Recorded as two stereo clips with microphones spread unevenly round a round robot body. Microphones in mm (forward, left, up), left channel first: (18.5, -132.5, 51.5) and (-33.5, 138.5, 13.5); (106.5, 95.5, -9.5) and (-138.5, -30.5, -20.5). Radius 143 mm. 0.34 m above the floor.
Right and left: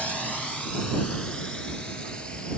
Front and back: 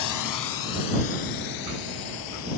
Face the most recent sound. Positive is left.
turn(degrees=5)